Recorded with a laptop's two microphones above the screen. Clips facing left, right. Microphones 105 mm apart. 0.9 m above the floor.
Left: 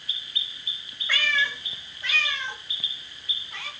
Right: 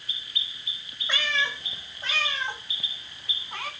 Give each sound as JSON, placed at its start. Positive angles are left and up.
{"t": 1.1, "sound": "a cat meowing", "side_deg": -25, "distance_m": 1.4}